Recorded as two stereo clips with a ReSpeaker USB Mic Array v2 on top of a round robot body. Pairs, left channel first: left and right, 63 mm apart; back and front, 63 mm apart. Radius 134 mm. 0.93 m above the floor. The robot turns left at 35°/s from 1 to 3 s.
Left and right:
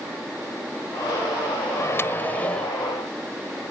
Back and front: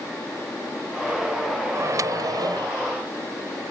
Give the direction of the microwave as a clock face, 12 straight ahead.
10 o'clock.